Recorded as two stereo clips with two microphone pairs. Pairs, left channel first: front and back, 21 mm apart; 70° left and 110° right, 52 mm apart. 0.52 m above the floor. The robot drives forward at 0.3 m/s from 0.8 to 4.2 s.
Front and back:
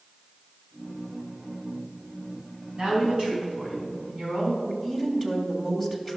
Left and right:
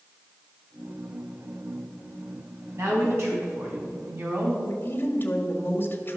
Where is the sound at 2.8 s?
135° right, 4 m; by 4.5 s 140° right, 4 m.